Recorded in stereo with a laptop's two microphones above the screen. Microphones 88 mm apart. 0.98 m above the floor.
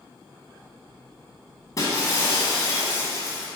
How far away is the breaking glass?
About 1.8 m.